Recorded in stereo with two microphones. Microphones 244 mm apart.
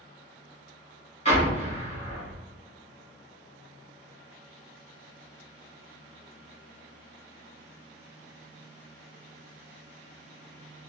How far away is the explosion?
About 1.1 m.